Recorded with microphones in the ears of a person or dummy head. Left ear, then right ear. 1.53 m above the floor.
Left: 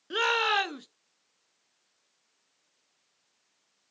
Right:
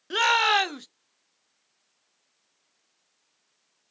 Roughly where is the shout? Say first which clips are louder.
Right 5 dB; right.